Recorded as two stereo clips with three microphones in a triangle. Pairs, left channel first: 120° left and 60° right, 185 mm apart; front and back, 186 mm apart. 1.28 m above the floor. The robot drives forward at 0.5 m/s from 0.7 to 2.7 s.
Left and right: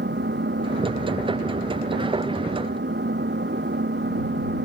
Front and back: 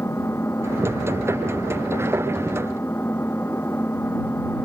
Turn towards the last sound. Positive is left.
turn(degrees=-80)